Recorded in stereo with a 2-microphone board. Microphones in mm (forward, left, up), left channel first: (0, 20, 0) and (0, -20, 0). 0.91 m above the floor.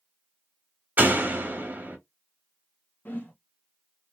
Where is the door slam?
50° right (ahead or behind), 1.3 m.